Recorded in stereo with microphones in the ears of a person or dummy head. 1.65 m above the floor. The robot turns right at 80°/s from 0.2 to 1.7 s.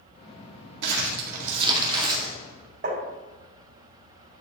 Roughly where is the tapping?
Right.